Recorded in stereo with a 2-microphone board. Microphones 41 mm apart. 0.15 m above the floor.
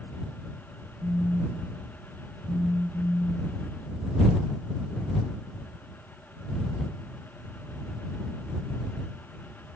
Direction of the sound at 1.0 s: 15° right (ahead or behind).